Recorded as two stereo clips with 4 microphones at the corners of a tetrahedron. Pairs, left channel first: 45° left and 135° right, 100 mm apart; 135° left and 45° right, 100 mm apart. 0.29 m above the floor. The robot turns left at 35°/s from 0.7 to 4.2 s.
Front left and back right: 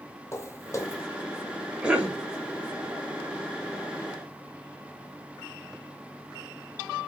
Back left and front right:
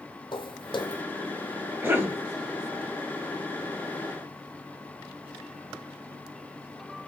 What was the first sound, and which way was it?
Footsteps, 105° left.